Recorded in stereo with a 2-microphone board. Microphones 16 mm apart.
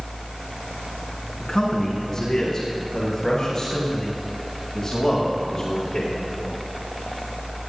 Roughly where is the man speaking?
Left.